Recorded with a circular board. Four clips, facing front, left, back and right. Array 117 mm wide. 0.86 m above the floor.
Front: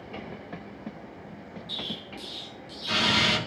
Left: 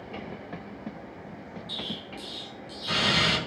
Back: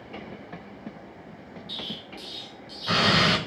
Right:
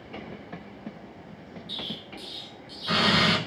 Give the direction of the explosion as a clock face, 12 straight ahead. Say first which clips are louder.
Even, front 1 dB; 6 o'clock.